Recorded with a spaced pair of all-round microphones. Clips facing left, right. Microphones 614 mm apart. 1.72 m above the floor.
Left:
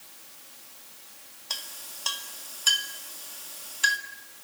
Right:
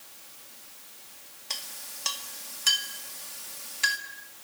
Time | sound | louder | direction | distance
1.5 | a clink | even | 45° right (ahead or behind) | 2.5 m